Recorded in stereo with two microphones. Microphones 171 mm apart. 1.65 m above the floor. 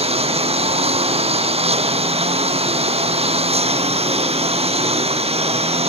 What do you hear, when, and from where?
0.0 s a lawn mower: 35° right (ahead or behind)